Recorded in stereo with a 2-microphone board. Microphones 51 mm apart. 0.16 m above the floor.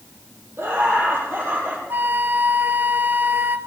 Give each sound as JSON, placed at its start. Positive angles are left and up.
{"t": 0.6, "sound": "laughter", "side_deg": -50, "distance_m": 4.5}
{"t": 1.9, "sound": "a flute", "side_deg": -40, "distance_m": 0.6}